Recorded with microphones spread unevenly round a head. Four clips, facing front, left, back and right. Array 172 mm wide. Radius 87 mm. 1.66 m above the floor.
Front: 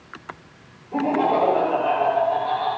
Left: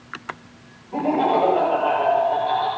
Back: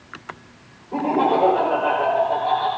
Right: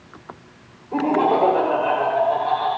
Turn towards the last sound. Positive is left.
turn(degrees=-120)